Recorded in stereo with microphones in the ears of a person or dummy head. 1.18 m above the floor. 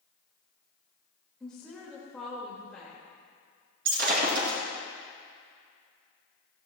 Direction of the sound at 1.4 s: 5° left (ahead or behind).